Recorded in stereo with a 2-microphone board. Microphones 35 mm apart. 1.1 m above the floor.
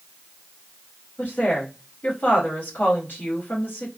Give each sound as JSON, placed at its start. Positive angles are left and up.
{"t": 1.2, "sound": "a woman speaking", "side_deg": 65, "distance_m": 1.9}